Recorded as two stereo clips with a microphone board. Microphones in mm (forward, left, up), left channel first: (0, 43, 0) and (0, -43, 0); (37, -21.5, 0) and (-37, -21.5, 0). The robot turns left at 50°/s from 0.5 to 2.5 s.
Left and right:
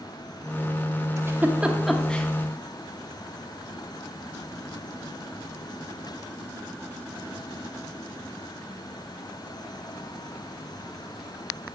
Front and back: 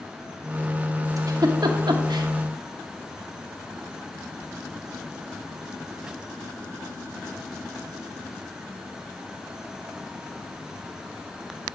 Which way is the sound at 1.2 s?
145° right.